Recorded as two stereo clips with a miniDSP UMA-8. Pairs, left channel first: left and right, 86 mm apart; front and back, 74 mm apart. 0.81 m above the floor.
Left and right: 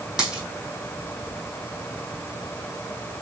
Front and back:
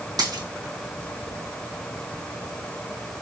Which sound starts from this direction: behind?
A dropped coin, at 0.2 s.